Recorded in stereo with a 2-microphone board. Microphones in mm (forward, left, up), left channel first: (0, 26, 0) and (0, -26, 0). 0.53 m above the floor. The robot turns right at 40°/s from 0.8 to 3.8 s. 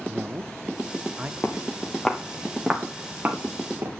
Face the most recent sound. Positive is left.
turn(degrees=-50)  # may be behind; listen again after turning